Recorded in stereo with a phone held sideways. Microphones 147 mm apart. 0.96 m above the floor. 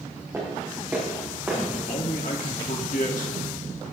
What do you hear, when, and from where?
0.3 s footsteps: 20° right (ahead or behind), 5.5 m; by 1.6 s 10° right (ahead or behind), 5.5 m
1.7 s a man speaking: 70° left (ahead or behind), 1.8 m